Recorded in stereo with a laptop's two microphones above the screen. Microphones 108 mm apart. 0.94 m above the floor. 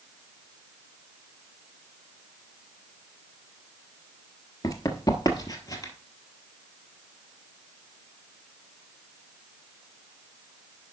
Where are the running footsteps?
30° left (ahead or behind), 1.0 m; by 5.9 s 35° left (ahead or behind), 1.4 m.